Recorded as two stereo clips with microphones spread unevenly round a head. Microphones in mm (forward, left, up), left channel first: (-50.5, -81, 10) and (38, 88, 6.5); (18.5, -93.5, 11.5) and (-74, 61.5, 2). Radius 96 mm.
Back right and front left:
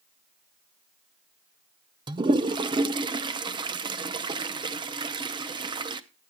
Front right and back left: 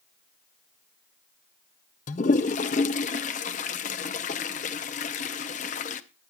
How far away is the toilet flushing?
About 0.6 m.